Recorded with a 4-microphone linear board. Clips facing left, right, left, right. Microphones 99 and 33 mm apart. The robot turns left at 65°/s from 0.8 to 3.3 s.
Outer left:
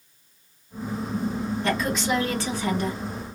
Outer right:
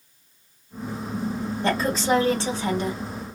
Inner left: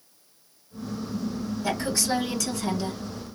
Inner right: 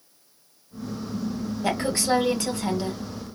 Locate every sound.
1.6 s a woman speaking: 70° right, 1.6 m; by 3.0 s 160° right, 1.6 m